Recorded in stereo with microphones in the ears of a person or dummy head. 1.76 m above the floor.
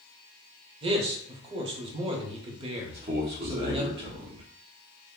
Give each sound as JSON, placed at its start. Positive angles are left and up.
{"t": 0.8, "sound": "a man speaking", "side_deg": -35, "distance_m": 0.8}
{"t": 2.9, "sound": "a man speaking", "side_deg": -20, "distance_m": 0.7}